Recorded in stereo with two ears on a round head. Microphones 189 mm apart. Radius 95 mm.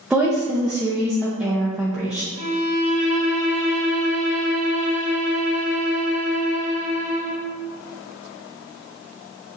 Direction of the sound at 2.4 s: 75° right (ahead or behind).